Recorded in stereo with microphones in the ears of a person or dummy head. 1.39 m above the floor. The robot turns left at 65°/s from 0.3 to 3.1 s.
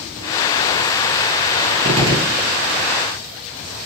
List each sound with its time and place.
1.9 s a gunshot: 140° right, 0.6 m; by 2.5 s straight behind, 0.6 m